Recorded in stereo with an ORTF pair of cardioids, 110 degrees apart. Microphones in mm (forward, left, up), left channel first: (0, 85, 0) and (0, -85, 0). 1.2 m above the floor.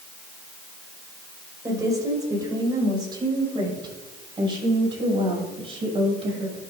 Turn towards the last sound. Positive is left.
turn(degrees=-35)